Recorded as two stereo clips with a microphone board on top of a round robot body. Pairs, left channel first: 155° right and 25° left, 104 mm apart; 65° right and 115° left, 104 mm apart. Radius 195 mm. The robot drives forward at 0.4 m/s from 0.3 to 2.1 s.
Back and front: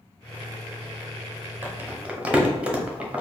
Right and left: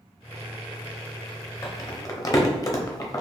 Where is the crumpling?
35° right, 1.2 m; by 3.2 s 45° right, 1.1 m.